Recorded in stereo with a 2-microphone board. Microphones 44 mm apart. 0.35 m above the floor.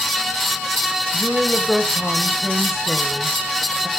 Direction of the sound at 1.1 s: Centre (ahead or behind).